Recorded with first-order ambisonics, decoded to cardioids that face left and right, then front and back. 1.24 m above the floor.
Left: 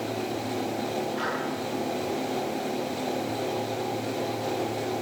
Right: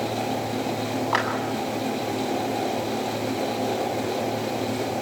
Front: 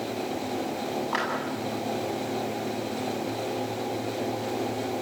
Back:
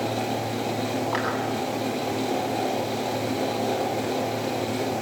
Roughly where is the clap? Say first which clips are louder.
Right 8 dB, front 1 dB; right.